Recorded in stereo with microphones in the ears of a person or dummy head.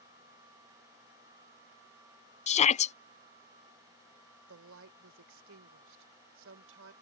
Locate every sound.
2.5 s a shout: 35° left (ahead or behind)
4.5 s a woman speaking: 80° right